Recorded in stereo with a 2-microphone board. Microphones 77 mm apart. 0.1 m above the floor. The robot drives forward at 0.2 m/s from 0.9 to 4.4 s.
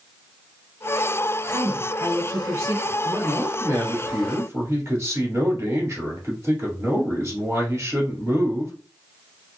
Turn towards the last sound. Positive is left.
turn(degrees=-35)  # may be behind; listen again after turning